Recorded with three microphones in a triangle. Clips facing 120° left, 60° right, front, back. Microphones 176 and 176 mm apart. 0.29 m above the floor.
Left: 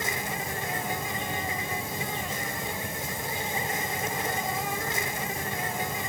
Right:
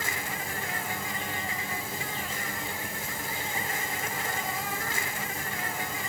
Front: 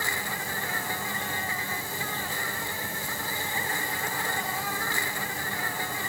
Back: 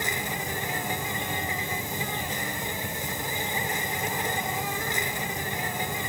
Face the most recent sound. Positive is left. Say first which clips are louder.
# left 3 dB, back 3 dB
turn(degrees=145)